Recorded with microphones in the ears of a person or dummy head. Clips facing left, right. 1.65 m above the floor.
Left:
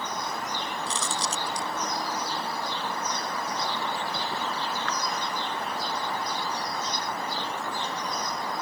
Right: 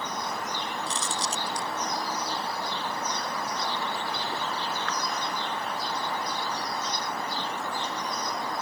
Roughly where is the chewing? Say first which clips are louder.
Left 1 dB; left.